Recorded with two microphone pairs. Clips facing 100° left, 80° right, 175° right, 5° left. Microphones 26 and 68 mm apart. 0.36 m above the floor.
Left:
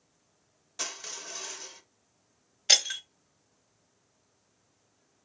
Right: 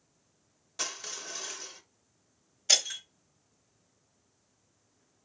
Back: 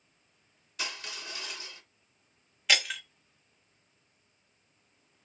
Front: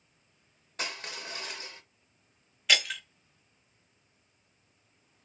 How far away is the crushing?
About 0.8 m.